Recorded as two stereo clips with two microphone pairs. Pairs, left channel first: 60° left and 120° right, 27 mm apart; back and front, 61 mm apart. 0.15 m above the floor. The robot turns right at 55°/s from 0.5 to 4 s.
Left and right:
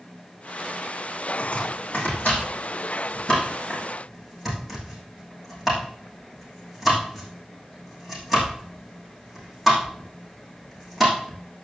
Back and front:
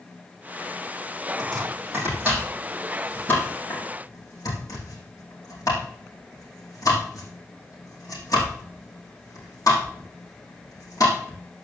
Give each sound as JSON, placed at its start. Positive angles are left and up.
{"t": 1.4, "sound": "chopping", "azimuth_deg": 15, "distance_m": 6.5}